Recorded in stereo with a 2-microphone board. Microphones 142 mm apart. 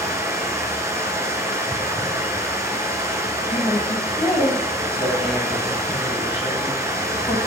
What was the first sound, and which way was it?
Running water, 25° right (ahead or behind).